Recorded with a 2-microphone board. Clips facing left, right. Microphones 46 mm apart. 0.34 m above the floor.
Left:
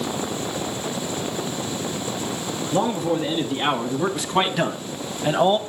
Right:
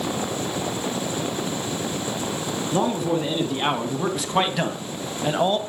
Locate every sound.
2.7 s a man speaking: 5° right (ahead or behind), 3 m; by 5.6 s 10° left (ahead or behind), 1.3 m